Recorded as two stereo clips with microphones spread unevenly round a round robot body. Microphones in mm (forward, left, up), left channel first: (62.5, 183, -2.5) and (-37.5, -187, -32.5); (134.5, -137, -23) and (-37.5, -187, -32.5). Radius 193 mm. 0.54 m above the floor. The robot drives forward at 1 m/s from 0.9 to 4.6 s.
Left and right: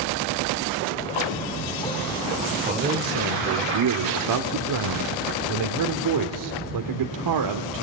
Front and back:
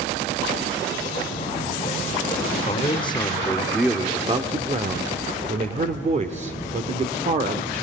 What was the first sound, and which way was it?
A man speaking, 35° right.